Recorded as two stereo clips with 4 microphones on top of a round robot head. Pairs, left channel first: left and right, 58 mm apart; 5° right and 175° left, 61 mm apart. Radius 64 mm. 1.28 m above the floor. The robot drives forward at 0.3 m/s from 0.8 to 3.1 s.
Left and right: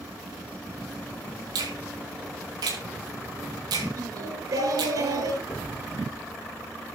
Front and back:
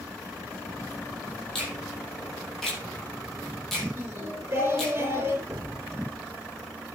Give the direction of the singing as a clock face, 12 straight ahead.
4 o'clock.